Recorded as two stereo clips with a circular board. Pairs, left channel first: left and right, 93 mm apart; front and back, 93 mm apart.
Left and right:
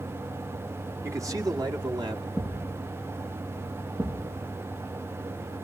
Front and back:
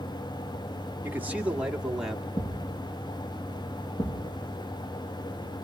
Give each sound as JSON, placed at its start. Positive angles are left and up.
{"t": 1.0, "sound": "a man speaking", "azimuth_deg": -125, "distance_m": 1.3}
{"t": 2.4, "sound": "a thud", "azimuth_deg": -10, "distance_m": 6.5}